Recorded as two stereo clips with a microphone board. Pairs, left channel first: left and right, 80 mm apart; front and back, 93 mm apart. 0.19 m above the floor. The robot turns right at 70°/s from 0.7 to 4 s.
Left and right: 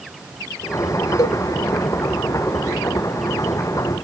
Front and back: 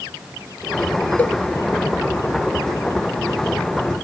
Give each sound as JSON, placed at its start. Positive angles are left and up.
{"t": 1.2, "sound": "a cowbell", "azimuth_deg": 65, "distance_m": 0.6}